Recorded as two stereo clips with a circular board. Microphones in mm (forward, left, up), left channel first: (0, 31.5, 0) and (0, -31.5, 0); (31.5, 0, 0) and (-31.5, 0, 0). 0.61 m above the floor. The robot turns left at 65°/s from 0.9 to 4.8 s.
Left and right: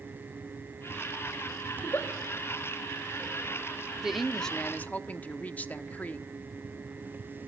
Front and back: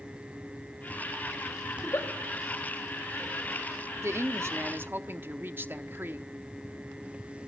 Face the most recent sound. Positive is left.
turn(degrees=140)